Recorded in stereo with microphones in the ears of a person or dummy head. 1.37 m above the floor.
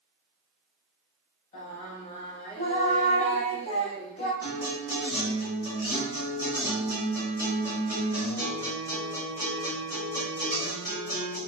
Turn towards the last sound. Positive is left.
turn(degrees=-10)  # may be behind; listen again after turning